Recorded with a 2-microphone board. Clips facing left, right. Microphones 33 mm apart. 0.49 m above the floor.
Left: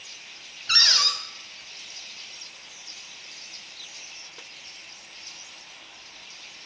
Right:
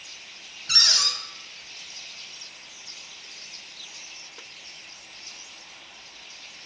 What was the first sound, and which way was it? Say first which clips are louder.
A cupboard door: left 2 dB; 20° left (ahead or behind).